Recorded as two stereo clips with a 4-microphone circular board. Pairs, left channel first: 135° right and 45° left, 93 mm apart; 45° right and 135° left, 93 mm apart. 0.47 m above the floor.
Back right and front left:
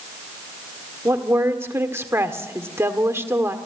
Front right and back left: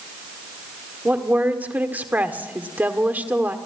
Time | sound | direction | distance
1.1 | a woman speaking | 80° left | 1.5 m